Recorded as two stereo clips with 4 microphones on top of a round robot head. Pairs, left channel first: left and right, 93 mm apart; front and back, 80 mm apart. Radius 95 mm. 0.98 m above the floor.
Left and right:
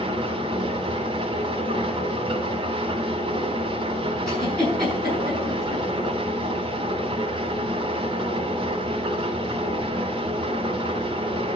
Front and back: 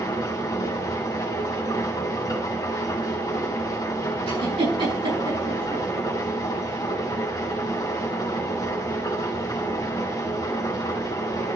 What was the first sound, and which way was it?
An engine running, 55° right.